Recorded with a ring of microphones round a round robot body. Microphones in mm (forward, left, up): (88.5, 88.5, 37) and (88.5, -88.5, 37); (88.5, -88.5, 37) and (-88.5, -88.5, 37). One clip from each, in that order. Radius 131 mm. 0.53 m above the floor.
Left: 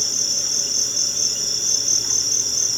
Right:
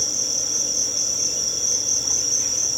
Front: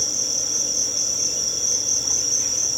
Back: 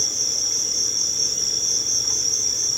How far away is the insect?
About 1.7 m.